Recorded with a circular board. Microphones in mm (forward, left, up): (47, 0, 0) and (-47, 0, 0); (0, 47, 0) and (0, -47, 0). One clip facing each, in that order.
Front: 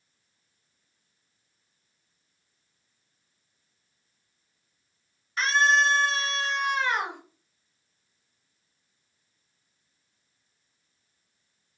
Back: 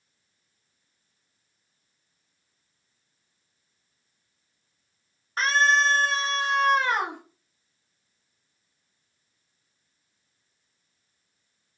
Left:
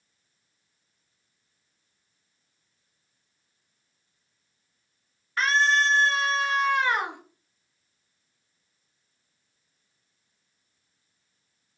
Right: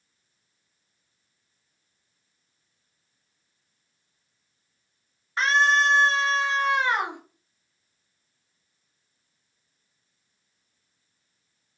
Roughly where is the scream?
Behind right.